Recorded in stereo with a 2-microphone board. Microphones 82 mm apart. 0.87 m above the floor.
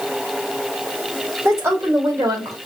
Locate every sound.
1.4 s a woman speaking: 35° right (ahead or behind), 3 m; by 2.6 s 45° right (ahead or behind), 2.5 m